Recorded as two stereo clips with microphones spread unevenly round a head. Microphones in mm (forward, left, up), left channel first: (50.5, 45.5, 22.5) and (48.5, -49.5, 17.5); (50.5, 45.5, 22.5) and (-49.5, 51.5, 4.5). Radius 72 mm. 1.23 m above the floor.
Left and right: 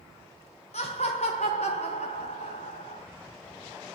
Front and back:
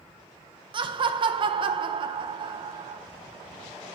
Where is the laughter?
135° left, 0.6 m.